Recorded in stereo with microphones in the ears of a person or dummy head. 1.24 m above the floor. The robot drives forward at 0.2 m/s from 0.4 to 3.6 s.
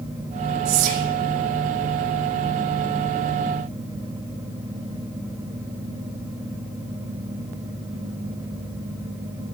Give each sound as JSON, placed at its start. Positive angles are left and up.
{"t": 0.7, "sound": "whispering", "side_deg": -80, "distance_m": 2.0}